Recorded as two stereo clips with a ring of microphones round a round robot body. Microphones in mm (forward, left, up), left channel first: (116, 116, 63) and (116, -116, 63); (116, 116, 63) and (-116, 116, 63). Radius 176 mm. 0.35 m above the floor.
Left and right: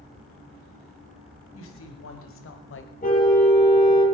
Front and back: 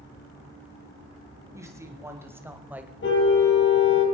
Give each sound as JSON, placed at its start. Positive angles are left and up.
{"t": 1.5, "sound": "a woman speaking", "azimuth_deg": 105, "distance_m": 3.0}
{"t": 3.0, "sound": "a car horn", "azimuth_deg": 35, "distance_m": 6.0}